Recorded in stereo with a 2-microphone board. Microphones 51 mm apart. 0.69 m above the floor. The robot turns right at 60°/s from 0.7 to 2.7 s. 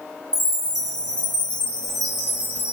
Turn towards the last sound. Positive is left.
turn(degrees=-140)